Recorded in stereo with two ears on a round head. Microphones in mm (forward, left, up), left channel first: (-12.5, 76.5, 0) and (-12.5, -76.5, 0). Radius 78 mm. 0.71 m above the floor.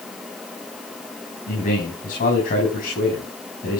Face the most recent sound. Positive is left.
turn(degrees=55)  # may be behind; listen again after turning